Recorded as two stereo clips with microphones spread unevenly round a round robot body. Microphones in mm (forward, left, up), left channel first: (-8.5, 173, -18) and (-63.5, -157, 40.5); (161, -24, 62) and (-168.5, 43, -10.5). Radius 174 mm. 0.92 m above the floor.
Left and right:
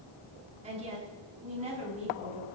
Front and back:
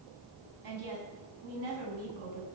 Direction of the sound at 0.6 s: 170° right.